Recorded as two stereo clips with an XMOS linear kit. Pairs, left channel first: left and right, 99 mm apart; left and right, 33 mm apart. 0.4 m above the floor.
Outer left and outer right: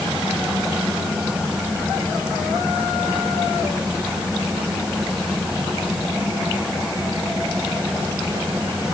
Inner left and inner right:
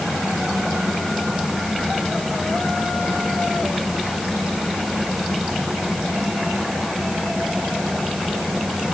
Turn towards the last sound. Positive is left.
No sound to turn to.